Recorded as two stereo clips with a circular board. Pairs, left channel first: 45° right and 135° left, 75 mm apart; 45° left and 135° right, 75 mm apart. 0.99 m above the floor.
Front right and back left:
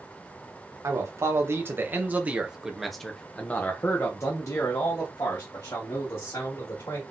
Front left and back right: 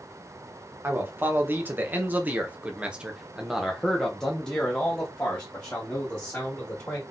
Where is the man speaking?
170° left, 1.4 m; by 7.0 s 20° right, 2 m.